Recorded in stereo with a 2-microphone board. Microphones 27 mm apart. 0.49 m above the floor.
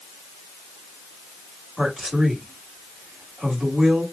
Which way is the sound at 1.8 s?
20° right (ahead or behind).